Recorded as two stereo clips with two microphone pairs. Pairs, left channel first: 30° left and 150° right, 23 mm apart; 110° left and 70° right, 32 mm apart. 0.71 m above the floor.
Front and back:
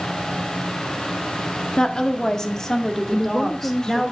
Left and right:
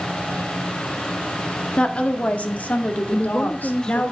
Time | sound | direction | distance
1.8 | a woman speaking | 60° left | 1.7 m
3.1 | a woman speaking | 55° left | 0.6 m